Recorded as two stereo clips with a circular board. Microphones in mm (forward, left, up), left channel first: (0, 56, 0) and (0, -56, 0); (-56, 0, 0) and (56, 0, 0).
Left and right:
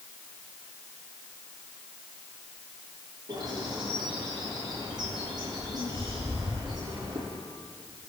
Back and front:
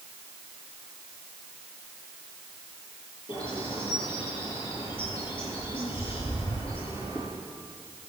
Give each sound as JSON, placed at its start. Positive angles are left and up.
{"t": 3.3, "sound": "a bird", "azimuth_deg": -140, "distance_m": 9.5}